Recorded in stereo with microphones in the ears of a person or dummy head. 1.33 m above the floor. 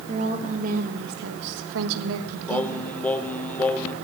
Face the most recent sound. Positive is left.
turn(degrees=10)  # may be behind; listen again after turning